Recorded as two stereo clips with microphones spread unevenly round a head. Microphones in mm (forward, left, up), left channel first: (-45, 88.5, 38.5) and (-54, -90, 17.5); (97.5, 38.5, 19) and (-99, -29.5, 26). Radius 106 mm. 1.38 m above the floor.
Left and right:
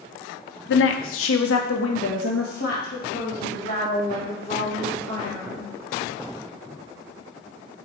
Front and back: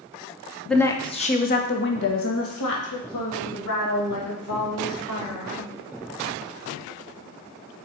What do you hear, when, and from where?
0.7 s a woman speaking: 105° left, 0.9 m; by 5.7 s 20° left, 4 m